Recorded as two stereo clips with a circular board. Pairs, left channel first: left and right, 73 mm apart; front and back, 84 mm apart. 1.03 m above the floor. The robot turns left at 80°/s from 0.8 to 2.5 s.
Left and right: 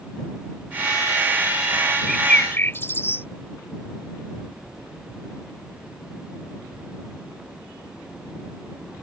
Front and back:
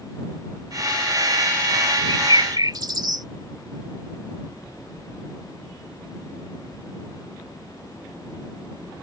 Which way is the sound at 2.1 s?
Straight behind.